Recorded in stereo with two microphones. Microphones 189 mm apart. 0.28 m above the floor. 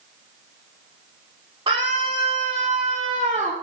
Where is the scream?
25° right (ahead or behind), 7 m; by 3.5 s 30° right (ahead or behind), 6 m.